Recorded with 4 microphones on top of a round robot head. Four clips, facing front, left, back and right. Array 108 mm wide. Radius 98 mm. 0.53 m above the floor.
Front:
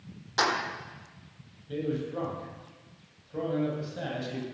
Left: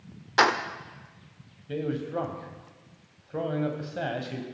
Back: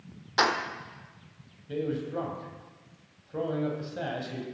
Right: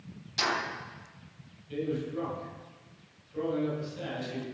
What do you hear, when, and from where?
0.4 s keys jangling: 100° left, 1.2 m
1.7 s a man speaking: 100° left, 3 m